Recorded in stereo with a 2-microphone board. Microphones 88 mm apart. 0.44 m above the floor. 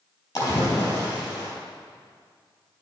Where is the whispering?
No whispering in this recording.